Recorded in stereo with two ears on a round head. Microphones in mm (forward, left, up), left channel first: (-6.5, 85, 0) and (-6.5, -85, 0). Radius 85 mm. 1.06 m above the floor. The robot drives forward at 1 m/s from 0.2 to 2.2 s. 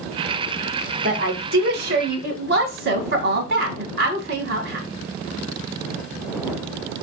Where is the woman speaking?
40° right (ahead or behind), 1.6 m; by 4.9 s 55° right (ahead or behind), 1.3 m.